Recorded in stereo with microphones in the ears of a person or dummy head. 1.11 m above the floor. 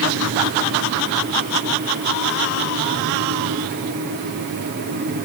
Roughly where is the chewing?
No chewing in this recording.